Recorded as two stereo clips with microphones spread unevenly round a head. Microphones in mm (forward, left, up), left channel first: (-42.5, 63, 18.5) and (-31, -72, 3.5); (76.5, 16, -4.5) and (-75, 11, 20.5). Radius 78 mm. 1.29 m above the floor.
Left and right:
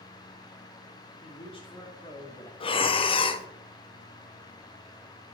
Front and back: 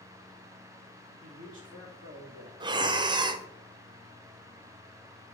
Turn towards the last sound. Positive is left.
turn(degrees=125)